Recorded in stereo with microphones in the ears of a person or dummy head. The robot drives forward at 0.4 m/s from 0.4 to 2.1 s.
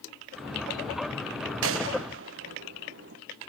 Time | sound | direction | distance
1.6 | a gunshot | 70° right (ahead or behind) | 1.0 m